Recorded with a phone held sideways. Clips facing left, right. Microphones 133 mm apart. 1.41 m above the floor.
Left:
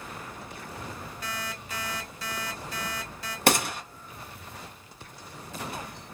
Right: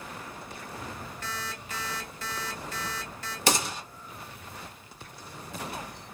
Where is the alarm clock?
10° left (ahead or behind), 1.4 m.